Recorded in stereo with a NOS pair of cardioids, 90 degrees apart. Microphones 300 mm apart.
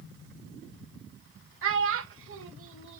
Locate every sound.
1.6 s a child speaking: 45° right, 0.8 m